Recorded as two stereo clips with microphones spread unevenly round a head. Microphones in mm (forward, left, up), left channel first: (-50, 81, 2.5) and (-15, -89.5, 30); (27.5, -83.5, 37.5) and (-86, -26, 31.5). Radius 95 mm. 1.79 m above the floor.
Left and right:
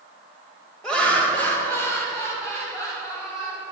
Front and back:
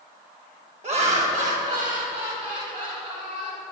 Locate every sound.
0.8 s laughter: 170° right, 1.4 m; by 3.6 s 175° left, 4 m